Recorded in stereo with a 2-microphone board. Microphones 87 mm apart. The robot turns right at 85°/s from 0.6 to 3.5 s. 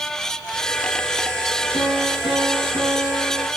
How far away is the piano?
About 6.5 m.